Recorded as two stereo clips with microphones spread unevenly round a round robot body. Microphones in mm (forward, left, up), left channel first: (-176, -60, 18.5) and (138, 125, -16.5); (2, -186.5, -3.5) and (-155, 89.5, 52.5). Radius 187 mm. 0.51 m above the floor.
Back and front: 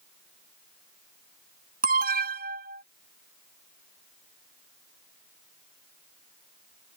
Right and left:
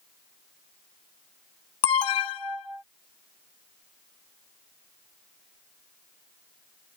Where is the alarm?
40° right.